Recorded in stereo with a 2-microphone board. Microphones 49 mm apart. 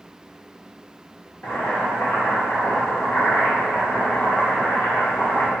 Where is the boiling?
45° left (ahead or behind), 0.8 m.